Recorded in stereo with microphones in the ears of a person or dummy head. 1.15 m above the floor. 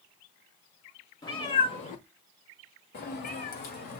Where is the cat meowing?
25° left (ahead or behind), 1.3 m; by 4.0 s 45° left (ahead or behind), 1.6 m.